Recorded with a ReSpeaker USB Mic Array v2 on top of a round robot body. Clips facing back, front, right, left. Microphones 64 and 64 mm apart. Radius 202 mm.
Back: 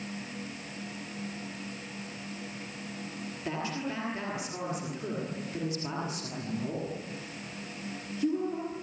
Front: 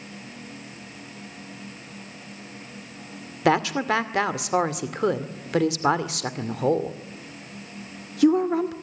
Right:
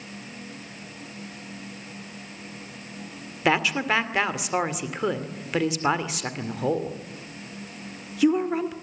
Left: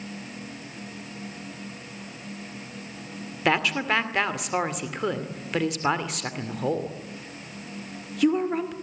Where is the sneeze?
I don't hear a sneeze.